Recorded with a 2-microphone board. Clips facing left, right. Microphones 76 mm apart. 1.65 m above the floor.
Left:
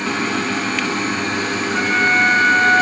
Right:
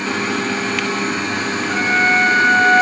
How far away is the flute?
About 3.5 m.